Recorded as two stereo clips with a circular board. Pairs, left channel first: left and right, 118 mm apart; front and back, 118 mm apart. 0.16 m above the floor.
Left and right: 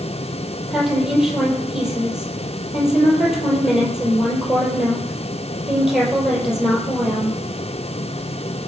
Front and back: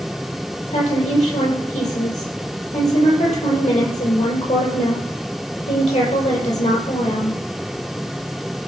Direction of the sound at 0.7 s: 5° right.